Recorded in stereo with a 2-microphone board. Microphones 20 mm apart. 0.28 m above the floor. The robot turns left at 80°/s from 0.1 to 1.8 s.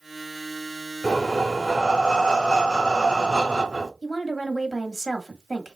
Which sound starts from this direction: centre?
A woman speaking, at 4.0 s.